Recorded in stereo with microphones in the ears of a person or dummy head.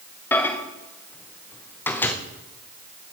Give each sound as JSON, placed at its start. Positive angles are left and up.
{"t": 0.3, "sound": "a microwave", "side_deg": 5, "distance_m": 1.1}